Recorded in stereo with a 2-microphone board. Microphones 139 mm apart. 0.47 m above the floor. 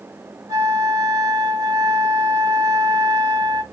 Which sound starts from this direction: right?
A flute, at 0.5 s.